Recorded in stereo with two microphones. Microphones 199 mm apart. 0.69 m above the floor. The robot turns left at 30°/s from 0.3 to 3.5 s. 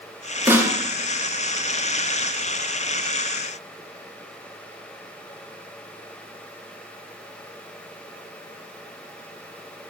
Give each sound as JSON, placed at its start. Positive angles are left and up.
{"t": 0.5, "sound": "a snare drum", "side_deg": -10, "distance_m": 1.4}